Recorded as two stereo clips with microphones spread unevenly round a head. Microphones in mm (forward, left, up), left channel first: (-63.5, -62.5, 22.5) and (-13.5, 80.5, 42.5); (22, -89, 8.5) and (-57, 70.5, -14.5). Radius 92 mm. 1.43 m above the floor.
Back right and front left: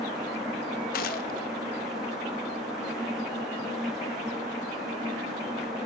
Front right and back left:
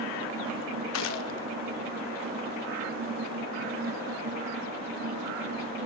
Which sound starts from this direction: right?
A gunshot, at 0.9 s.